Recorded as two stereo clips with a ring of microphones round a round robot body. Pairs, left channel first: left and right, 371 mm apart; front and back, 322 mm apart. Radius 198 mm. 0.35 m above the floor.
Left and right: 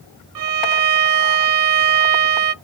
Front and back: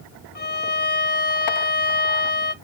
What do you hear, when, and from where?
0.3 s a violin: 60° right, 0.6 m